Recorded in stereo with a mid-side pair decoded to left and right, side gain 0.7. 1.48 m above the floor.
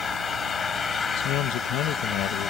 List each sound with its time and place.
0.0 s an engine running: 30° left
1.2 s a man speaking: 60° left